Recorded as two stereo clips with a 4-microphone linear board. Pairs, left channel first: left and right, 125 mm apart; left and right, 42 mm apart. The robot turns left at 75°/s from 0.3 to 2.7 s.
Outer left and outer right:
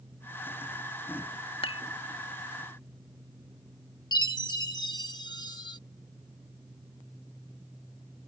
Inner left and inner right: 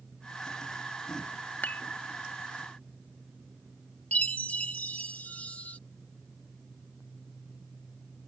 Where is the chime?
35° left (ahead or behind).